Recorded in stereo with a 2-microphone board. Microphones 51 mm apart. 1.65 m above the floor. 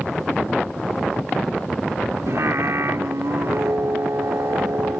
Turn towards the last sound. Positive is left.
turn(degrees=-70)  # may be behind; listen again after turning